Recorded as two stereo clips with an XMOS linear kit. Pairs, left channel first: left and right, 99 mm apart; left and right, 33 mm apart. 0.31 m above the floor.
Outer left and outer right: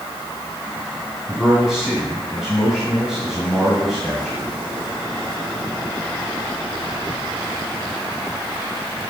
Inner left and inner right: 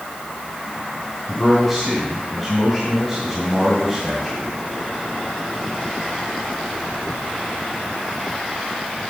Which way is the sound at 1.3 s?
5° right (ahead or behind).